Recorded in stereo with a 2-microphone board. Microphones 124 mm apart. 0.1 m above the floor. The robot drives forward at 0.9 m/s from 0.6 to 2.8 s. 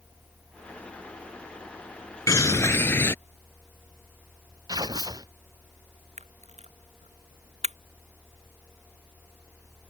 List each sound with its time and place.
2.3 s a bird: 25° left (ahead or behind); by 3.1 s 20° left (ahead or behind)
4.7 s tearing paper: 30° right (ahead or behind)
6.2 s a camera shutter: 60° right (ahead or behind)